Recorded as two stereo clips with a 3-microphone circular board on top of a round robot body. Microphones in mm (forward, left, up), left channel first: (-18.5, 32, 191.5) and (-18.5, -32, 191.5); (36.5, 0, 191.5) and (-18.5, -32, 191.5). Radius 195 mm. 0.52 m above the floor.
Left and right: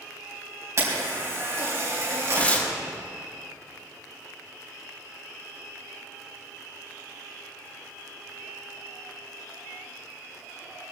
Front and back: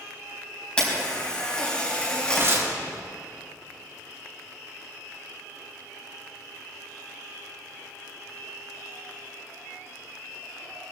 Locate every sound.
0.8 s a camera shutter: 45° right, 5 m
2.3 s tearing paper: 160° left, 2 m